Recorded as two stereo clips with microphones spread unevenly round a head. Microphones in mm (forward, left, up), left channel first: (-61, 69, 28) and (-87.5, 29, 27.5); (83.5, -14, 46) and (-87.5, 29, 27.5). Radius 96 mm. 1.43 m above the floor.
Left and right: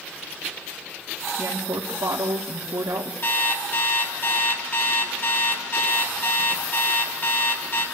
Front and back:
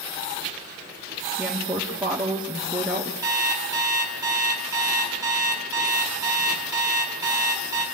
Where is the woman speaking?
115° right, 3 m.